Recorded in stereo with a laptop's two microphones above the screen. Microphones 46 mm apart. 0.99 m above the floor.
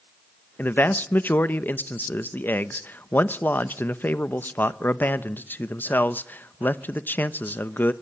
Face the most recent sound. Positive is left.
turn(degrees=45)  # may be behind; listen again after turning